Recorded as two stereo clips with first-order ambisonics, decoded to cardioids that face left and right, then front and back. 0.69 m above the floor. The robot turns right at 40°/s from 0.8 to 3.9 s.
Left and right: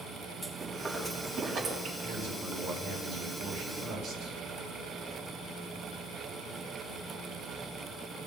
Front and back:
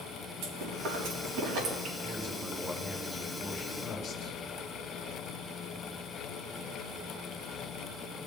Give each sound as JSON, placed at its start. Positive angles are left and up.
{"t": 0.4, "sound": "chewing", "azimuth_deg": 170, "distance_m": 4.0}
{"t": 2.0, "sound": "a man speaking", "azimuth_deg": -135, "distance_m": 3.5}